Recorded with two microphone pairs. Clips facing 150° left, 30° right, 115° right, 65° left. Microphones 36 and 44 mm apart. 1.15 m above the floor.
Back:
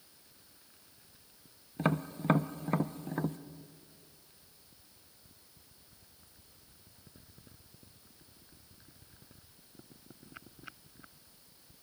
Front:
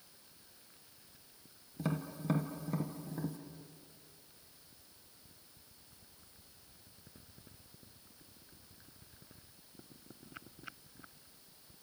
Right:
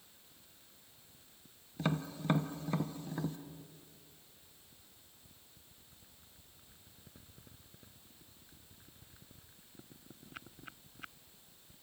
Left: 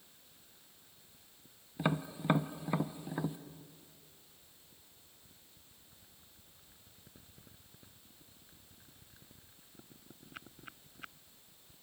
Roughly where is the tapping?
Behind left.